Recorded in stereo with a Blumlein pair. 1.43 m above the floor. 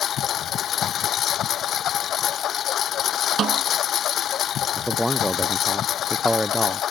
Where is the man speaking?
Straight ahead.